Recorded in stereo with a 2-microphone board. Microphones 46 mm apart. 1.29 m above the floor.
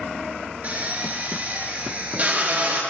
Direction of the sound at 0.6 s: 35° right (ahead or behind).